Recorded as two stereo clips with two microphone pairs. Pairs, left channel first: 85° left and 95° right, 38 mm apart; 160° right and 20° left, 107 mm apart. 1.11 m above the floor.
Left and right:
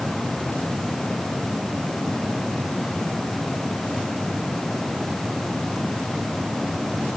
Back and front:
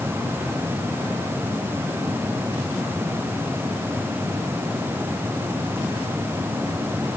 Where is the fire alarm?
I don't hear a fire alarm.